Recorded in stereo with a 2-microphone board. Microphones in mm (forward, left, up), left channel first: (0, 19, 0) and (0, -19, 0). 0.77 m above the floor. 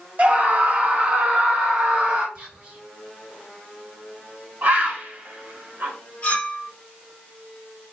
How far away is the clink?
About 1.0 m.